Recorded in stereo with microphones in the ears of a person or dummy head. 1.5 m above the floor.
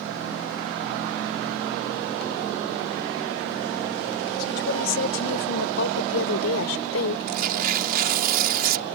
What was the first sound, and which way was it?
A woman speaking, 65° left (ahead or behind).